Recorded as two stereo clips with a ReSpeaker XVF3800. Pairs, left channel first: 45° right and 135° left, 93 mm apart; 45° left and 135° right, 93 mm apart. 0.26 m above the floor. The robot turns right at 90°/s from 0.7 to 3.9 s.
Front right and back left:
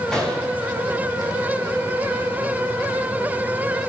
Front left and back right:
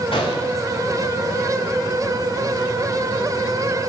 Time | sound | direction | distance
0.1 | a gunshot | 40° left | 7.5 m